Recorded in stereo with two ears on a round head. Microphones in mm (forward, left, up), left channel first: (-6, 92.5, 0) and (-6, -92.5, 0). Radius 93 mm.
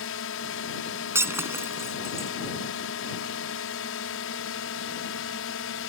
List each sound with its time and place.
0.0 s a drone: 70° left (ahead or behind)
1.1 s breaking glass: 10° right (ahead or behind)